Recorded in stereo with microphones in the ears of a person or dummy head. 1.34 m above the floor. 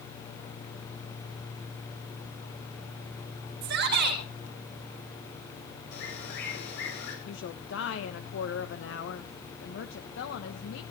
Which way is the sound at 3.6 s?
70° right (ahead or behind).